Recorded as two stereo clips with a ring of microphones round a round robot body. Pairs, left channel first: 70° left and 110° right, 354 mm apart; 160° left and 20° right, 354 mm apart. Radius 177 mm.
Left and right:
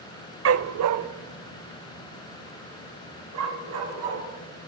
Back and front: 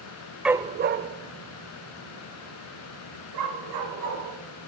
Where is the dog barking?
110° right, 0.6 m; by 4.2 s 65° right, 4.5 m.